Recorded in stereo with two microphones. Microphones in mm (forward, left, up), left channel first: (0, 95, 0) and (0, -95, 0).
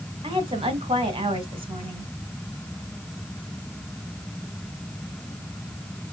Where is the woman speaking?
30° right (ahead or behind), 1.2 m.